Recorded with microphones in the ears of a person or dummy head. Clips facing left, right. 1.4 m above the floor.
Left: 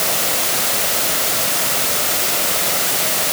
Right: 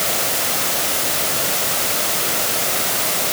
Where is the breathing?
I don't hear breathing.